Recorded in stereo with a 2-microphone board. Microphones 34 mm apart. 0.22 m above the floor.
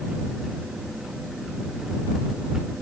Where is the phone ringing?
I don't hear a phone ringing.